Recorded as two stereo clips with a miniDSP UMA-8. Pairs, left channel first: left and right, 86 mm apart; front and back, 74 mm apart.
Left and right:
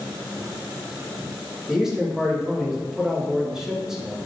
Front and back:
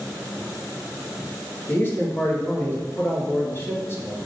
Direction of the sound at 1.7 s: 15° right.